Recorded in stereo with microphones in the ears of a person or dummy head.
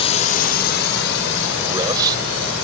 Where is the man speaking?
20° right (ahead or behind).